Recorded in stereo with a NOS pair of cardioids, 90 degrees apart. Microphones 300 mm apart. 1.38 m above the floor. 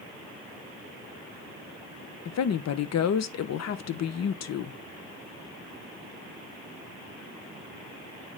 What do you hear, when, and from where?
2.2 s a woman speaking: 60° left, 1.1 m